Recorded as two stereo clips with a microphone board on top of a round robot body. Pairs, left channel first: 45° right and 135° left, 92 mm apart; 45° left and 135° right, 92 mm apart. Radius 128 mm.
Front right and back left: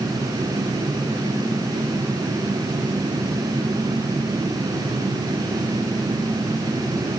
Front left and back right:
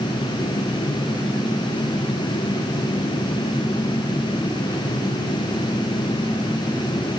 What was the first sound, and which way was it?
Only background noise.